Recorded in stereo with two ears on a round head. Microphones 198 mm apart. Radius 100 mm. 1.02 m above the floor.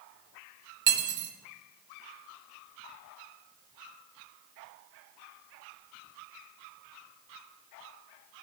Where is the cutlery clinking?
55° right (ahead or behind), 0.8 m.